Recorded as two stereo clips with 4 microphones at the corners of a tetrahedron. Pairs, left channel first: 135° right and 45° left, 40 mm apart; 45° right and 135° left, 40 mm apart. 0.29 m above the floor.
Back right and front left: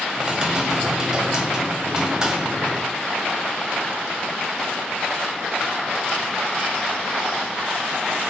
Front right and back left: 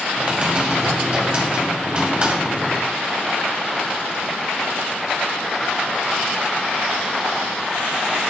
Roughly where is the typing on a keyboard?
Left.